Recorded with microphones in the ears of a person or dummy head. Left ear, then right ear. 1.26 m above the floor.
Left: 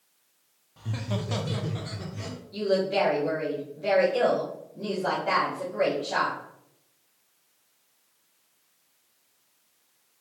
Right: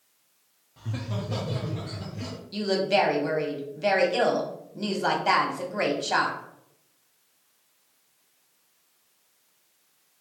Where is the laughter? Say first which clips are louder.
Left 1 dB; 5° left (ahead or behind), 0.6 m; by 2.4 s 60° left (ahead or behind), 1.2 m.